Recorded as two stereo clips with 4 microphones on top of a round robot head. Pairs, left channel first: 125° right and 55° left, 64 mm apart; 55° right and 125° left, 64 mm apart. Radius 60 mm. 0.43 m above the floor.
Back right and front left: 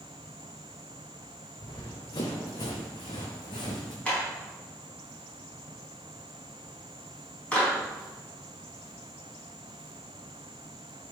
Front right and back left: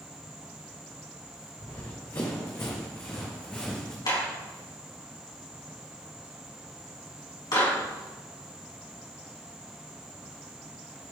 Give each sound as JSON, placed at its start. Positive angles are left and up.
{"t": 1.6, "sound": "running footsteps", "azimuth_deg": -100, "distance_m": 2.0}
{"t": 4.0, "sound": "a clap", "azimuth_deg": -55, "distance_m": 4.0}